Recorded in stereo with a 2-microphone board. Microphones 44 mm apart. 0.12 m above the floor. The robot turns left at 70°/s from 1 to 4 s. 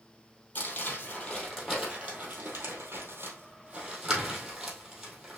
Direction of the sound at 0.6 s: 35° left (ahead or behind).